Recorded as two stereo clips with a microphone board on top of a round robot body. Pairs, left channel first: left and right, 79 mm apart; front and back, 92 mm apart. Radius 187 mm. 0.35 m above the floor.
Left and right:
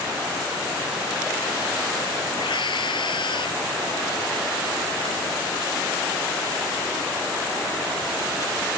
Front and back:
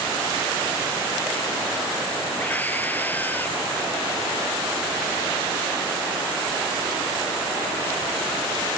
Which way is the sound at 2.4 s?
70° left.